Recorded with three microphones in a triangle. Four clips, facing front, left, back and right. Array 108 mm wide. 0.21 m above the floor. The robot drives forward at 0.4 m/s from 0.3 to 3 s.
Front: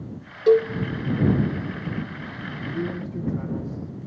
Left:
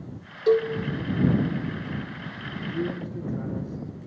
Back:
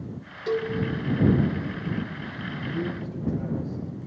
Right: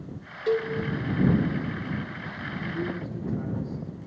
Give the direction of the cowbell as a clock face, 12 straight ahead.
11 o'clock.